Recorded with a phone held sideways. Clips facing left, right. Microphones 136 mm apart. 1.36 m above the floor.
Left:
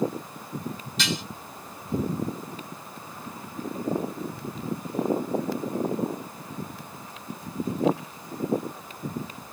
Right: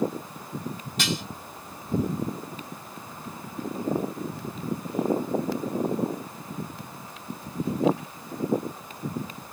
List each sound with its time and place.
1.0 s dishes clattering: 50° right (ahead or behind), 2 m